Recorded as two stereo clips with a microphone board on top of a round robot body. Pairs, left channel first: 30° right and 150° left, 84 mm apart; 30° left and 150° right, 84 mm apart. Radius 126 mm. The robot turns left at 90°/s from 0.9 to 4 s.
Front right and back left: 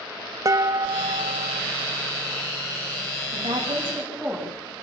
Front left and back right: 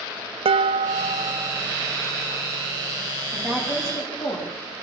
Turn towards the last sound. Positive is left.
turn(degrees=65)